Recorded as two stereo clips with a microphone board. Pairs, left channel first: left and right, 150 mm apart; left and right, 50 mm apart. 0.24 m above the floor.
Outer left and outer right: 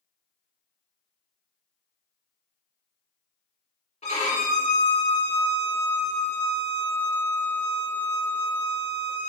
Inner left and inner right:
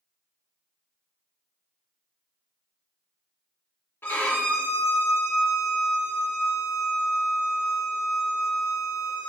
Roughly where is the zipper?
I don't hear a zipper.